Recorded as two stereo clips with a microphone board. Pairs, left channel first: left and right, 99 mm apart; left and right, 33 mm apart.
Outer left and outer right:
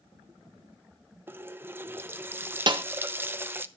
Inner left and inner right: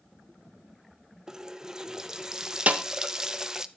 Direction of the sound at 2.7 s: 50° right (ahead or behind).